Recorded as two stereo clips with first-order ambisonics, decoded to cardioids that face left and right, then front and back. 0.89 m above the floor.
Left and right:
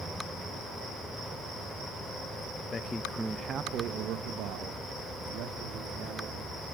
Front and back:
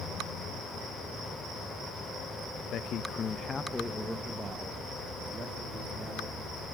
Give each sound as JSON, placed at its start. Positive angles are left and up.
{"t": 2.7, "sound": "a man speaking", "azimuth_deg": 30, "distance_m": 0.8}